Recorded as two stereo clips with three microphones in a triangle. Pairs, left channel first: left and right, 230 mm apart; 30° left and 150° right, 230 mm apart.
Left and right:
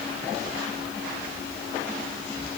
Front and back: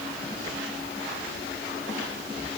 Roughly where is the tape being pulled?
I don't hear tape being pulled.